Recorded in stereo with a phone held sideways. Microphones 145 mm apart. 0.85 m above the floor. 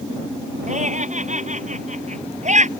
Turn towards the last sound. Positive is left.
turn(degrees=-55)  # may be behind; listen again after turning